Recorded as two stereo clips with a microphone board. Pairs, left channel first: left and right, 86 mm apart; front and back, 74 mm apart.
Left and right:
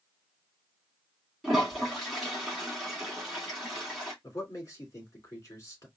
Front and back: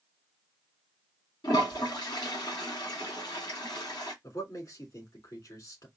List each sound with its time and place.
1.4 s a toilet flushing: straight ahead, 2.5 m
4.2 s a man speaking: 35° left, 2.5 m